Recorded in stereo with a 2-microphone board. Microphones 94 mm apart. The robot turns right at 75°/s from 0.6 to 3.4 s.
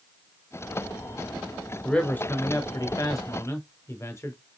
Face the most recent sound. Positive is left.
turn(degrees=125)